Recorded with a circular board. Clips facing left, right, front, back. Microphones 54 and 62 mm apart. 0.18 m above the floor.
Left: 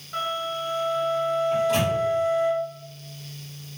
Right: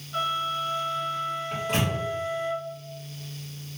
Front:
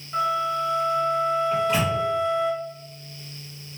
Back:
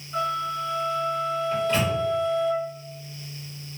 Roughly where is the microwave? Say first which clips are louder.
Left 3 dB, front 1 dB; right.